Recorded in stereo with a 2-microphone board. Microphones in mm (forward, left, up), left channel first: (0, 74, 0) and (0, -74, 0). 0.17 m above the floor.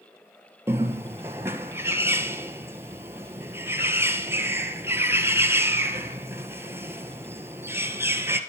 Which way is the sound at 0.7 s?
15° right (ahead or behind).